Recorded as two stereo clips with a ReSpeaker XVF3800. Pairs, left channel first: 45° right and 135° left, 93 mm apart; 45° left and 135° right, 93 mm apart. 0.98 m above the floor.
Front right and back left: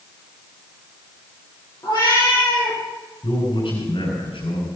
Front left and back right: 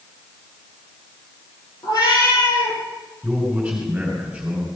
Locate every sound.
1.8 s a cat meowing: straight ahead, 6.5 m
3.2 s a man speaking: 55° right, 5.5 m